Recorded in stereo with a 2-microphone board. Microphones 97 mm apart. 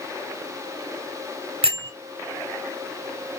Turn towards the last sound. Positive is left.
turn(degrees=-75)  # may be behind; listen again after turning